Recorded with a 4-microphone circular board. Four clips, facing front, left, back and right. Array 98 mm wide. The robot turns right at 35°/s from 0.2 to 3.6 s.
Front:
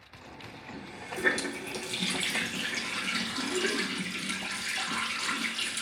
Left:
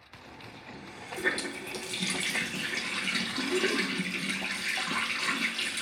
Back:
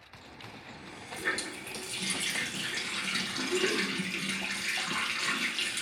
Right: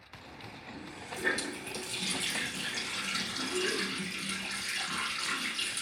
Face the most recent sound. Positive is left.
turn(degrees=110)